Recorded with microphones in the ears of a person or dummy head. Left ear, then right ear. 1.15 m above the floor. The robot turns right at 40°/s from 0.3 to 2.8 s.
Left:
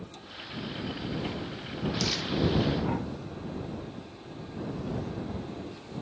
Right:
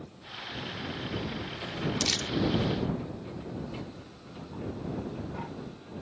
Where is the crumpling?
40° right (ahead or behind); by 2.3 s 50° right (ahead or behind).